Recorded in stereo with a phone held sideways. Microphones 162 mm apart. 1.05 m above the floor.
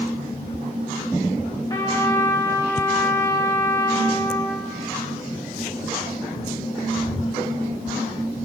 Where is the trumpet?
25° left (ahead or behind), 2.5 m.